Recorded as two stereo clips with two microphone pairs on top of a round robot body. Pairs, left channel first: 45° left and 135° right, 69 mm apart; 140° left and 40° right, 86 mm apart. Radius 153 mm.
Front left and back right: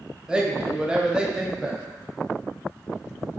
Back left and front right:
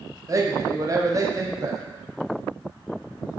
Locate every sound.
0.3 s a man speaking: 45° right, 0.8 m